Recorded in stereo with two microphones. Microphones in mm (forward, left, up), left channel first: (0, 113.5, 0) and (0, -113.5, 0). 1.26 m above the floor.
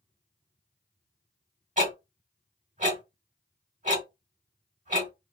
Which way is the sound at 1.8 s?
35° right (ahead or behind).